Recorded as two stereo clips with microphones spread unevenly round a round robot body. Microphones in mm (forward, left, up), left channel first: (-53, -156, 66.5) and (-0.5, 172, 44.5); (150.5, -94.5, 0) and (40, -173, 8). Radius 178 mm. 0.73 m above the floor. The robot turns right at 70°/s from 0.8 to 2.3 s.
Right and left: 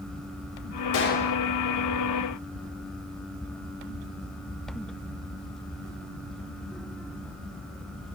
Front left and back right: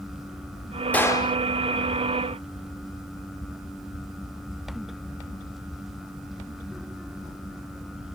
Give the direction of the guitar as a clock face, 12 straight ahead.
I don't hear a guitar.